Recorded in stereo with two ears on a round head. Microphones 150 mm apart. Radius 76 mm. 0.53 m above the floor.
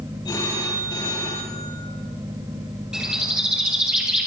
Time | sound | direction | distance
0.2 | a phone ringing | 25° left (ahead or behind) | 8 m
2.9 | a bird | 5° right (ahead or behind) | 6.5 m